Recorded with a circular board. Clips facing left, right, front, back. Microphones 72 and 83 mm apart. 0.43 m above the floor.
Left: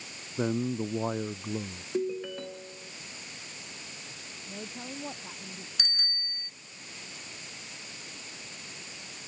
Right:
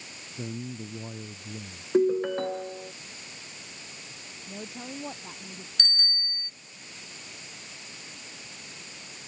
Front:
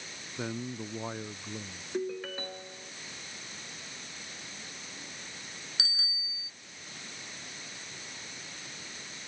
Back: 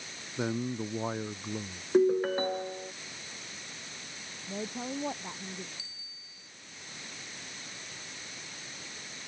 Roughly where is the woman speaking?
Behind.